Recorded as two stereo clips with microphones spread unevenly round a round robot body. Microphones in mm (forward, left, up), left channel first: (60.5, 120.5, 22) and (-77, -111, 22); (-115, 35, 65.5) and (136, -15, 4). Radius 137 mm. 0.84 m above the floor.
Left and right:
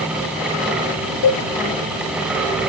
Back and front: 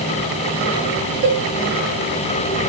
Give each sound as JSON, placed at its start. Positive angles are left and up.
{"t": 1.2, "sound": "a cowbell", "azimuth_deg": 35, "distance_m": 2.5}